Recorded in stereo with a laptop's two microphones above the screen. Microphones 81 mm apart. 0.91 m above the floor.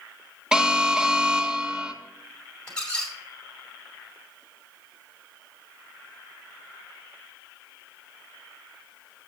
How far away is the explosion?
I don't hear an explosion.